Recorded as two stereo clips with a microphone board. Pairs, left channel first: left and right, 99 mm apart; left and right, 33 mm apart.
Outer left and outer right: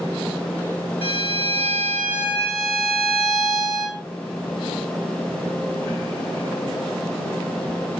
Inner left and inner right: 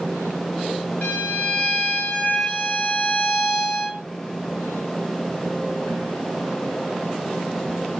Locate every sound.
1.0 s a violin: 60° left (ahead or behind), 0.7 m